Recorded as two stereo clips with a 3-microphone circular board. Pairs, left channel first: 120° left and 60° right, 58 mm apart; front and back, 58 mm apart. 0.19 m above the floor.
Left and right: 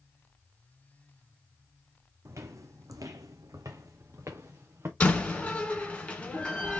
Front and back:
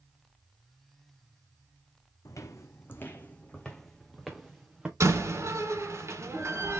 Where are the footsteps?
25° right, 0.8 m; by 4.9 s 100° right, 1.3 m.